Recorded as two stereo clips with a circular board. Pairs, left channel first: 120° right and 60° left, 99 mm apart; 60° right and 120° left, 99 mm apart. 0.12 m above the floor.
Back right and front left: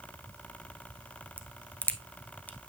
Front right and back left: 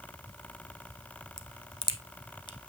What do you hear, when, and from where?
1.4 s a crack: 50° right, 0.7 m